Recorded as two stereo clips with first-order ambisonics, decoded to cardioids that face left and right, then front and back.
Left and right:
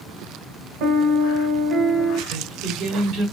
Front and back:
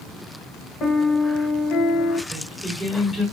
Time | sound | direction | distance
0.8 | a piano | 60° right | 1.1 m
2.3 | singing | 90° right | 1.5 m